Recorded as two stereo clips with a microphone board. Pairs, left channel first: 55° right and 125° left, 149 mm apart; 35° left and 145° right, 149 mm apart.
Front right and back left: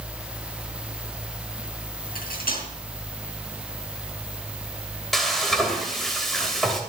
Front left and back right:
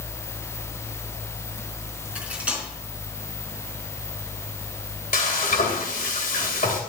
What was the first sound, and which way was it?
Cutlery clinking, 65° right.